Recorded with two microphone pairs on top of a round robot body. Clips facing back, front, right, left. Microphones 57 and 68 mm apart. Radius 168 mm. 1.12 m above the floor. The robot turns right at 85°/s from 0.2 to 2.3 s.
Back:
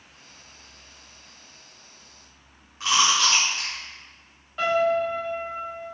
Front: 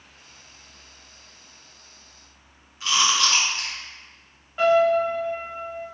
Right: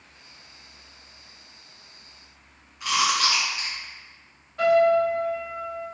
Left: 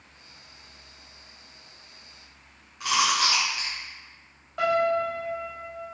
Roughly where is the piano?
Left.